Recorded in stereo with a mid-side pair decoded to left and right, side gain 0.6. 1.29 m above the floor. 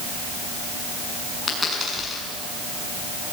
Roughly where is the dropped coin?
Ahead.